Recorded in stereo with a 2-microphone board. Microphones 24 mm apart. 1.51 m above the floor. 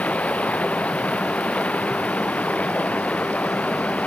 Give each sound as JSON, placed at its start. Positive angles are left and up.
{"t": 0.0, "sound": "running water", "side_deg": 85}